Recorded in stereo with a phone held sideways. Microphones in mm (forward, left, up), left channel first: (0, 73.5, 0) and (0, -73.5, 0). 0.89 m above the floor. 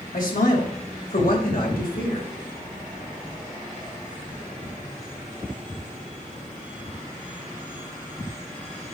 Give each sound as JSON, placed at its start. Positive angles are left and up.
{"t": 0.1, "sound": "a man speaking", "side_deg": 85, "distance_m": 3.5}